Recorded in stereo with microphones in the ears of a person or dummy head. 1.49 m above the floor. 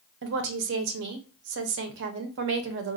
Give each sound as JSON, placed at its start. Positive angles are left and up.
{"t": 0.2, "sound": "a woman speaking", "side_deg": -60, "distance_m": 0.6}